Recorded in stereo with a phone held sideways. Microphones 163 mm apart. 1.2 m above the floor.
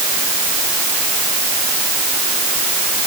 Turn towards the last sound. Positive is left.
No sound to turn to.